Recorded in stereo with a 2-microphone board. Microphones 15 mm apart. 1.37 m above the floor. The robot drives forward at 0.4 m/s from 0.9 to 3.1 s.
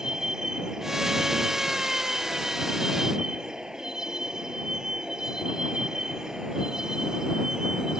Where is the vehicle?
45° right (ahead or behind).